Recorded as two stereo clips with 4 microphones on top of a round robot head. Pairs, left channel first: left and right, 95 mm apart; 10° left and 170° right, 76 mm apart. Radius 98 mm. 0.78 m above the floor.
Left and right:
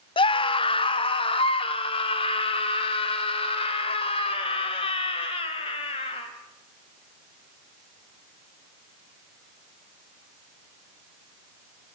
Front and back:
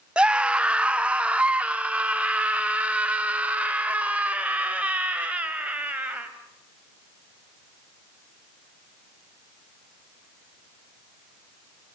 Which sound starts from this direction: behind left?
A scream, at 0.2 s.